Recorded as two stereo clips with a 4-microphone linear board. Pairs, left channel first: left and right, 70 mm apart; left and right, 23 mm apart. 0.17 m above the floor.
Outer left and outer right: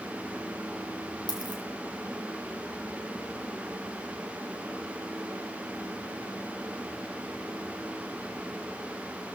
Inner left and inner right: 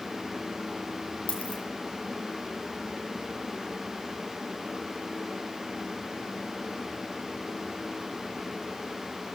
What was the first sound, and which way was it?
A dropped coin, 75° left (ahead or behind).